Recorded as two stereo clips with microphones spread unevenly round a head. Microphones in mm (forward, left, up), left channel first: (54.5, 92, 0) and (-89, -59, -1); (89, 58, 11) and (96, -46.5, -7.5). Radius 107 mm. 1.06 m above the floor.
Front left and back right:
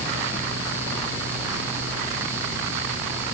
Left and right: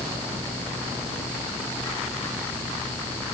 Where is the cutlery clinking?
No cutlery clinking in this recording.